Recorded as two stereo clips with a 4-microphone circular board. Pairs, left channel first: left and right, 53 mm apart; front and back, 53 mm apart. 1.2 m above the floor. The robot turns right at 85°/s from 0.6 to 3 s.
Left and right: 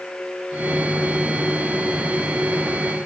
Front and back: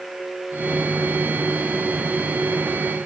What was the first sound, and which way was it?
Only background noise.